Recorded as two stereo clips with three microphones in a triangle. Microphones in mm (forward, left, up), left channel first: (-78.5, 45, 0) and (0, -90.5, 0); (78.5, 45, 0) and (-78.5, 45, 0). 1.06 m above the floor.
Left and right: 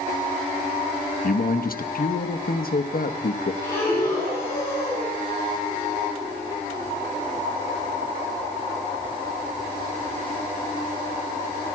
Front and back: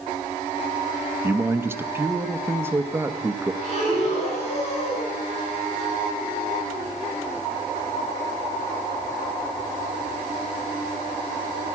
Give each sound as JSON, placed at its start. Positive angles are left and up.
{"t": 1.2, "sound": "a man speaking", "azimuth_deg": 105, "distance_m": 0.9}
{"t": 3.6, "sound": "breathing", "azimuth_deg": 45, "distance_m": 6.5}